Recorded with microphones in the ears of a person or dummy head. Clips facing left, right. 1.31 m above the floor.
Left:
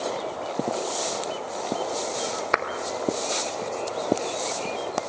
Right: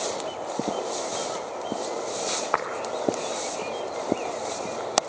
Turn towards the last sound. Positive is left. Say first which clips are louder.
# left 2 dB
turn(degrees=30)  # may be behind; listen again after turning